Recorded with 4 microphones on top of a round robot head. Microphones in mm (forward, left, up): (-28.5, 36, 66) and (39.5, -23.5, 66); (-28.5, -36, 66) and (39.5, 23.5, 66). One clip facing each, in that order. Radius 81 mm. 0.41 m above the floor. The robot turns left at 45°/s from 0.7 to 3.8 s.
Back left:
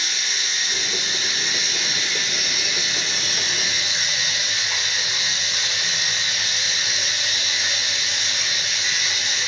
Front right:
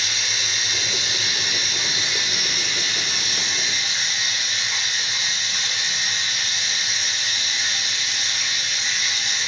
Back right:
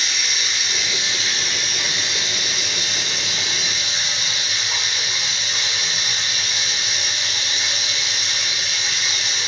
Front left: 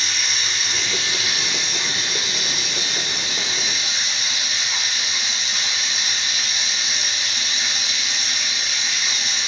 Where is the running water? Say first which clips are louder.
Even, even; 50° right, 1.7 m; by 9.5 s 170° left, 1.7 m.